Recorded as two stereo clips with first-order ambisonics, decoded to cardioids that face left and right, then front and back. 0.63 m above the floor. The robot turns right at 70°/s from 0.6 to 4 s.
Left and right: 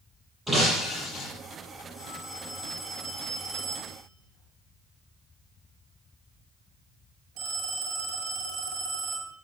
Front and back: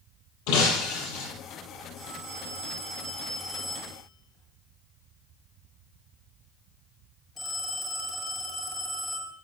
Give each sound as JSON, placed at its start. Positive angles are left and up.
{"t": 0.5, "sound": "breaking glass", "azimuth_deg": -10, "distance_m": 7.0}
{"t": 2.0, "sound": "a phone ringing", "azimuth_deg": 125, "distance_m": 9.5}